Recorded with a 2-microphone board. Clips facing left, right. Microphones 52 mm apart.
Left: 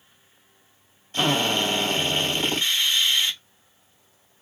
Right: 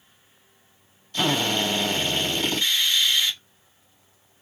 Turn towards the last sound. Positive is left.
turn(degrees=30)  # may be behind; listen again after turning